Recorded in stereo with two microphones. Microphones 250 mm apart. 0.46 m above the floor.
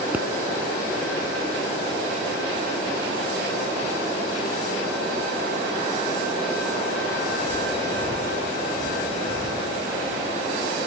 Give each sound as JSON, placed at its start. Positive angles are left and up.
{"t": 0.1, "sound": "a pop", "side_deg": -5, "distance_m": 1.2}